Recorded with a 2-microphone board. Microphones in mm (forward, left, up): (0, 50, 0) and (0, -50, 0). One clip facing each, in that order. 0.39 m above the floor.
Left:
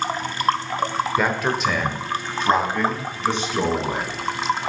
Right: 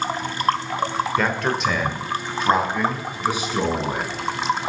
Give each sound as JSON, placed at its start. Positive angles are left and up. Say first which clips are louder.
{"t": 1.2, "sound": "a man speaking", "louder": "left 1 dB", "side_deg": 5, "distance_m": 1.0}